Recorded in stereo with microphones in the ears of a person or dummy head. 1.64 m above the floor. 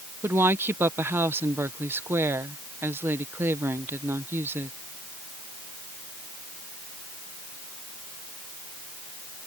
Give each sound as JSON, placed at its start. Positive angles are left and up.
{"t": 0.2, "sound": "a woman speaking", "side_deg": -15}